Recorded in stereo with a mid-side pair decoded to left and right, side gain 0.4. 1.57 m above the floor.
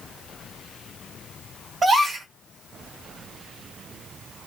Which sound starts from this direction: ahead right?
A gasp, at 1.8 s.